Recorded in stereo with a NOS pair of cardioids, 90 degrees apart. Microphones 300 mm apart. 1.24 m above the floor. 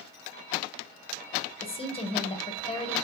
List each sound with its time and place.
1.6 s a woman speaking: 20° left, 0.8 m